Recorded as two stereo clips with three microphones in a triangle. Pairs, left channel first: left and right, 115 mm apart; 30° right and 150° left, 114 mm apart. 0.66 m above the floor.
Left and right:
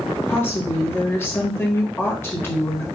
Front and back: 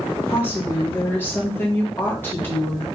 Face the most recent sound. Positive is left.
turn(degrees=30)